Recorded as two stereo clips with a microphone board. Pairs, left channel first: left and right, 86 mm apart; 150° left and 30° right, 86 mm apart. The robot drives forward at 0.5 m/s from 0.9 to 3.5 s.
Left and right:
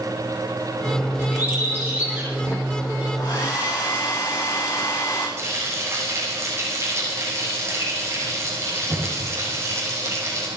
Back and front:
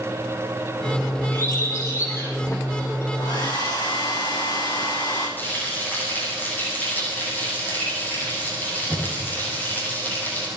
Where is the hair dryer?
120° left, 6 m; by 5.3 s 125° left, 6 m.